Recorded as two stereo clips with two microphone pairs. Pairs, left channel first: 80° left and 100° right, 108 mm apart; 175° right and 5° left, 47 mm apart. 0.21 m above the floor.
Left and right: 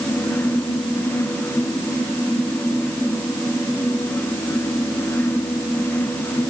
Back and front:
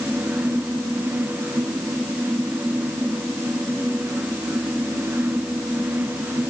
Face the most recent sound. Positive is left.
No sound to turn to.